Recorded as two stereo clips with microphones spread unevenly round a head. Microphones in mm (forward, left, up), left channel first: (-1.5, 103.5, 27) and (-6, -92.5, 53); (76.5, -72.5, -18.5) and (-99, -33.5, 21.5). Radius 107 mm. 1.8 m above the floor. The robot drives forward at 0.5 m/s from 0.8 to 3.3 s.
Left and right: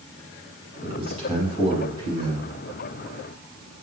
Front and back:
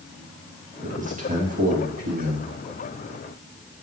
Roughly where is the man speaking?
Behind right.